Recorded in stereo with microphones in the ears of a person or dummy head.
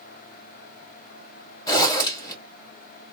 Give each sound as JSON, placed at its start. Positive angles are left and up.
{"t": 1.7, "sound": "a zipper", "side_deg": 20, "distance_m": 2.5}